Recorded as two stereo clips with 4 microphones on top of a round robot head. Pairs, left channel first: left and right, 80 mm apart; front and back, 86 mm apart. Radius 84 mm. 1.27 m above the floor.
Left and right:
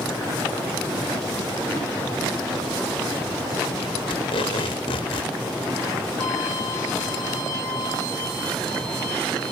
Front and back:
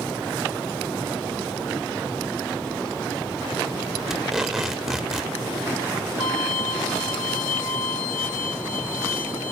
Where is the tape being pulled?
90° left, 1.3 m.